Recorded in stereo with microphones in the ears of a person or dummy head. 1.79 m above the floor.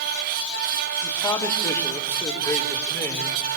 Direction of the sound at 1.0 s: 25° left (ahead or behind).